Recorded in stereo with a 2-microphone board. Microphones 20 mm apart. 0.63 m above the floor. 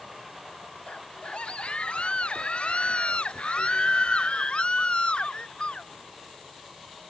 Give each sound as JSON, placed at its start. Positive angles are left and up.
{"t": 0.9, "sound": "a scream", "side_deg": 85}